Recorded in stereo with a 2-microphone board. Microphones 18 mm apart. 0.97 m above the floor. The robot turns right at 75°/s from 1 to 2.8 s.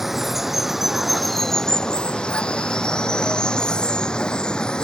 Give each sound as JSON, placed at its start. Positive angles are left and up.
{"t": 0.0, "sound": "running water", "azimuth_deg": -15}